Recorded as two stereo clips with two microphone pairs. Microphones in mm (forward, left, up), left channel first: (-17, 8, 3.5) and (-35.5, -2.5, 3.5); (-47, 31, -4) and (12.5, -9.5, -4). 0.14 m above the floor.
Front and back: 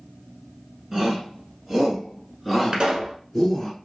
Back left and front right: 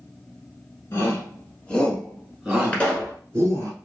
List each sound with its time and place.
0.9 s a shout: 165° left, 1.3 m; by 3.7 s 55° right, 1.4 m
2.7 s a pop: 150° right, 1.2 m